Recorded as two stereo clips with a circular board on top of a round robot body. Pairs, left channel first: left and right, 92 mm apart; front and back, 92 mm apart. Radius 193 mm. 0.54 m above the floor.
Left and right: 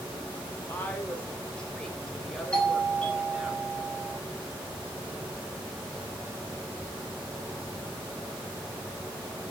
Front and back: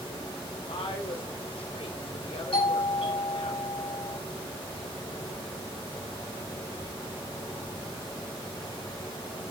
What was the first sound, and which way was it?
A woman speaking, 20° left.